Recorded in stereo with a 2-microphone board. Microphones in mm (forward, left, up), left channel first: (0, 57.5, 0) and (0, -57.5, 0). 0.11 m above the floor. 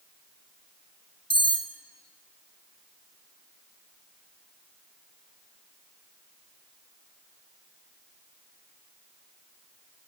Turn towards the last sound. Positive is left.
turn(degrees=45)  # may be behind; listen again after turning